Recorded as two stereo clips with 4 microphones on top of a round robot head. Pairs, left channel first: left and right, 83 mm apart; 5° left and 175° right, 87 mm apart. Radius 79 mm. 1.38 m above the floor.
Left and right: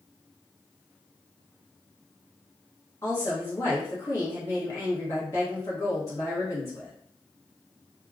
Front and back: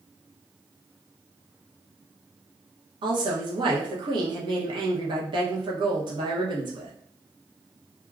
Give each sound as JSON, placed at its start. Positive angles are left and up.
{"t": 3.0, "sound": "a woman speaking", "azimuth_deg": 155, "distance_m": 0.9}